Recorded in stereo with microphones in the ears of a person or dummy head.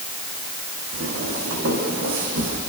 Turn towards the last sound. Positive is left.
turn(degrees=-65)  # may be behind; listen again after turning